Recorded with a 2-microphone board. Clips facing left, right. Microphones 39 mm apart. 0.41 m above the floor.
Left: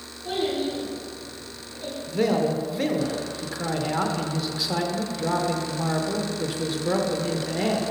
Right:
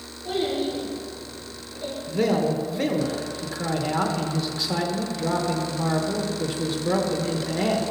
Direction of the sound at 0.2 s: 15° left (ahead or behind).